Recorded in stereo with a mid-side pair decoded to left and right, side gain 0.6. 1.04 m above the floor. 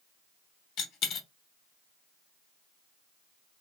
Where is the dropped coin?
60° left, 0.9 m.